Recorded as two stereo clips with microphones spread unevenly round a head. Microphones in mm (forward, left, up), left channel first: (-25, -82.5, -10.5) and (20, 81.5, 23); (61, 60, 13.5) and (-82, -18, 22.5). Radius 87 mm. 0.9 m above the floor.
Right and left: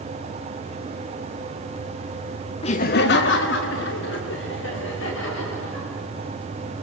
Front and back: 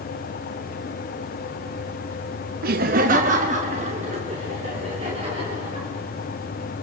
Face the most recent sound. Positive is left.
turn(degrees=-90)